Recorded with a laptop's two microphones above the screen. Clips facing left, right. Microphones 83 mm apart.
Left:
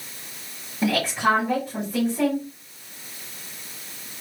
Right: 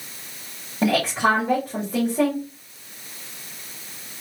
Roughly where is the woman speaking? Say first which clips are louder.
Right 2 dB; right.